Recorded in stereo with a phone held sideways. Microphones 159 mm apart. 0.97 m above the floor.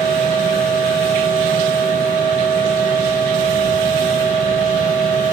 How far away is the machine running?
About 4.5 m.